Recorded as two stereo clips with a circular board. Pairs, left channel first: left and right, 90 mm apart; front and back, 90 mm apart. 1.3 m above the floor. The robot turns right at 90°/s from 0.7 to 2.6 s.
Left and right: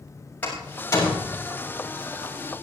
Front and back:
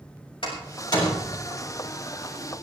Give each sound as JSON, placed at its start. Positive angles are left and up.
{"t": 0.4, "sound": "a door slam", "azimuth_deg": 15, "distance_m": 6.5}